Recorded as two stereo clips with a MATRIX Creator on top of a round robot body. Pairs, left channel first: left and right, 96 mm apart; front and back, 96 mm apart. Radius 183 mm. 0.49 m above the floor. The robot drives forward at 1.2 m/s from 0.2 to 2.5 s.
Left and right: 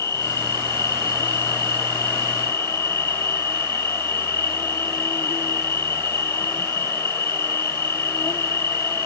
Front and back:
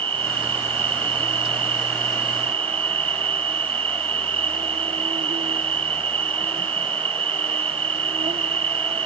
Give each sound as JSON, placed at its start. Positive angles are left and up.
{"t": 0.0, "sound": "an insect", "azimuth_deg": 150}